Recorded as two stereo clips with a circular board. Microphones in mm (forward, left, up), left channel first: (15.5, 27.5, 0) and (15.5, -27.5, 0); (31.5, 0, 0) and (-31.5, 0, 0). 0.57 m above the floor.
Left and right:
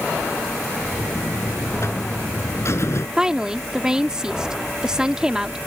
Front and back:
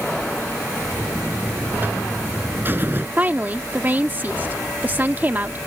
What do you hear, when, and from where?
1.0 s a buzzer: 125° left
3.2 s a woman speaking: 155° right